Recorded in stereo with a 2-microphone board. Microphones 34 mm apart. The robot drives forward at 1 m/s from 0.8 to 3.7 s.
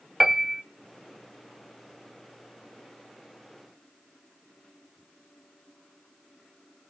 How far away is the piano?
About 0.6 m.